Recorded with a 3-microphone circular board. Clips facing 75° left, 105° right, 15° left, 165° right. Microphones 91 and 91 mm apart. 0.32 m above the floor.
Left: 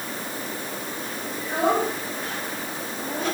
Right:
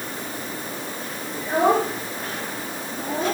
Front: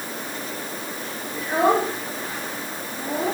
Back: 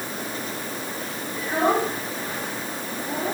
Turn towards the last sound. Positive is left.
turn(degrees=-50)